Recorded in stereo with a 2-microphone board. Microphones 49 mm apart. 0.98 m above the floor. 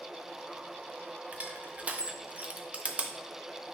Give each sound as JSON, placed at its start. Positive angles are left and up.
{"t": 1.3, "sound": "crushing", "side_deg": -25, "distance_m": 0.8}